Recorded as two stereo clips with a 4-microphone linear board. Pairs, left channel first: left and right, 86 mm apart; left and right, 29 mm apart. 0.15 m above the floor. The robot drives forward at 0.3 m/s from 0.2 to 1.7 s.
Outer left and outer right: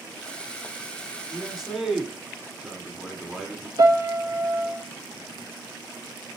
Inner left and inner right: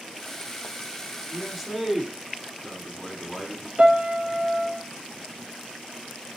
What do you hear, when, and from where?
1.3 s a man speaking: 5° right (ahead or behind), 1.4 m
3.8 s a piano: 60° right (ahead or behind), 0.9 m